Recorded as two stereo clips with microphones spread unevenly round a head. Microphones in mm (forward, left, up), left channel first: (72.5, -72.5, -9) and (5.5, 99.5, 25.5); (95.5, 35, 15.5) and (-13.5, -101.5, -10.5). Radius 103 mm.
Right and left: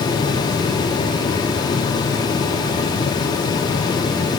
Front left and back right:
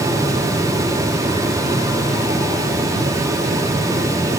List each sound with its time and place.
Only background noise.